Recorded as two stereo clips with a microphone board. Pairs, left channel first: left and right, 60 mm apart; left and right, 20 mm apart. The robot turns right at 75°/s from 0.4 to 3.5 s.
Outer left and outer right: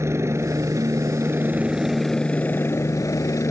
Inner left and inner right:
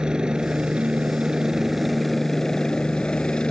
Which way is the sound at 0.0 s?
120° right.